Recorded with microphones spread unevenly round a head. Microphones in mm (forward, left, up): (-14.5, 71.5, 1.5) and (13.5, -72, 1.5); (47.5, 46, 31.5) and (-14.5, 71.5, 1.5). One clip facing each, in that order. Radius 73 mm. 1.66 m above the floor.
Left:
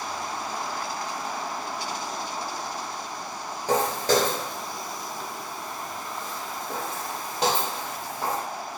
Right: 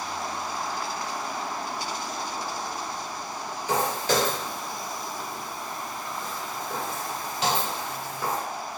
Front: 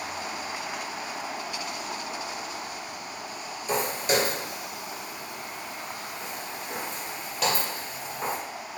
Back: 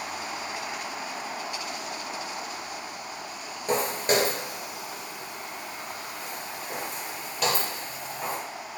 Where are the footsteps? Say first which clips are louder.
Left 3 dB, back 1 dB; 115° left, 2.0 m; by 8.4 s 50° left, 3.5 m.